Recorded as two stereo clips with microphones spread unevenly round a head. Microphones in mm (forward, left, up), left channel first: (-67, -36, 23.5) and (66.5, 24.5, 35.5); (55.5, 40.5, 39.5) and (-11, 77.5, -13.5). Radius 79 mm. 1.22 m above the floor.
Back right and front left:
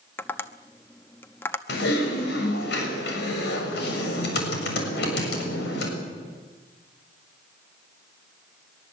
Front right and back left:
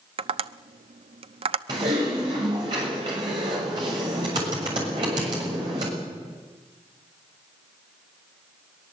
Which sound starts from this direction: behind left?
Tapping, at 0.2 s.